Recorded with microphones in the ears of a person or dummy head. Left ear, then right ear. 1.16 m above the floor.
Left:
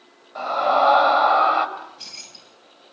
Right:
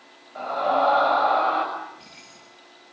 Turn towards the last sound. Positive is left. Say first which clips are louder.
# left 2 dB
turn(degrees=55)  # may be behind; listen again after turning